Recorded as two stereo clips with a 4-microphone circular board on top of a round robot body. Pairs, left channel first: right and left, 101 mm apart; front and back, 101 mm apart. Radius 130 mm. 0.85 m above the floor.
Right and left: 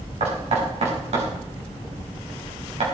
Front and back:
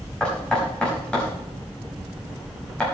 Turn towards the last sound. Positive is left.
turn(degrees=80)